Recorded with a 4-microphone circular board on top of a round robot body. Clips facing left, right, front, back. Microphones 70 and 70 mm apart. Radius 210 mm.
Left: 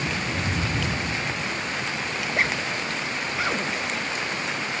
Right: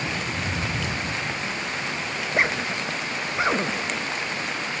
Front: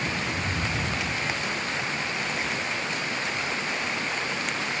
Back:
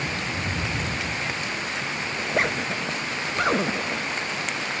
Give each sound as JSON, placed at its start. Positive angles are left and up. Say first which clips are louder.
{"t": 2.2, "sound": "a zipper", "louder": "right 2 dB, back 4 dB", "azimuth_deg": -155}